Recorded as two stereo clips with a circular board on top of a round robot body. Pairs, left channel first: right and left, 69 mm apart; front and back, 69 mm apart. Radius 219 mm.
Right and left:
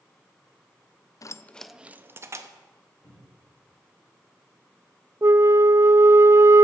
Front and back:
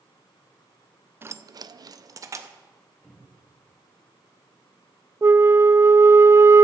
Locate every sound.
1.2 s keys jangling: 125° right, 0.5 m; by 2.5 s 135° left, 0.9 m
3.0 s a cupboard door: 65° right, 4 m
5.2 s a flute: 135° left, 0.6 m